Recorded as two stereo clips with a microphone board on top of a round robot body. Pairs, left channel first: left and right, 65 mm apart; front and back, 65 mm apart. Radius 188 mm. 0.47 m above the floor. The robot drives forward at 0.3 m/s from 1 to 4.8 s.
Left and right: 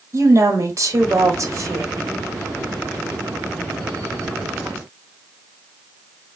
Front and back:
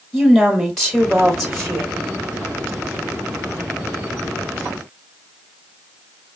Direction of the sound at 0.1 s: 85° right.